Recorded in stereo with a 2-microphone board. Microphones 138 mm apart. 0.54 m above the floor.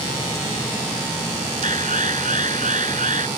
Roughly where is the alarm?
Right.